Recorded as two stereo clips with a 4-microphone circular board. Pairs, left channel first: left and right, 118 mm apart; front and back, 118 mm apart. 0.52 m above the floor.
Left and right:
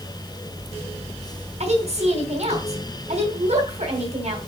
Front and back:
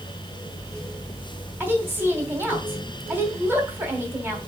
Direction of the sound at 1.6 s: 105° right.